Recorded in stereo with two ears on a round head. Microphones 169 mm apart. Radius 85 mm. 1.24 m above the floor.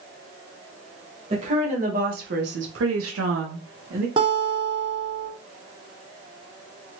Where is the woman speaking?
35° right (ahead or behind), 1.1 m; by 4.1 s 45° right (ahead or behind), 0.8 m.